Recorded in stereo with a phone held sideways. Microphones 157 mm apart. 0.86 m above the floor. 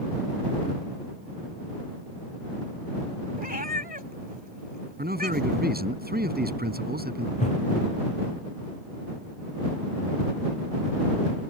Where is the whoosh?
50° left (ahead or behind).